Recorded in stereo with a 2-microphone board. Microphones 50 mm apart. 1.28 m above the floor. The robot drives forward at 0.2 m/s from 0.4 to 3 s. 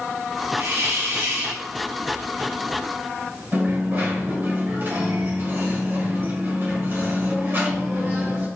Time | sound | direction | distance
0.6 | a hiss | 65° right (ahead or behind) | 1.4 m
3.5 | a dropped coin | 45° right (ahead or behind) | 1.5 m